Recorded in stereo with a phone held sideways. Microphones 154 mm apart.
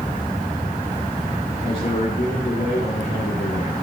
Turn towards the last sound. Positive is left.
turn(degrees=80)